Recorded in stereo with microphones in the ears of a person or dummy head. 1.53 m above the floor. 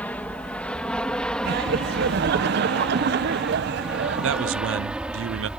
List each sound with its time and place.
0.0 s an aircraft: 5° left (ahead or behind); by 5.6 s 5° right (ahead or behind)
1.4 s laughter: 55° right (ahead or behind)
4.2 s a man speaking: 65° right (ahead or behind)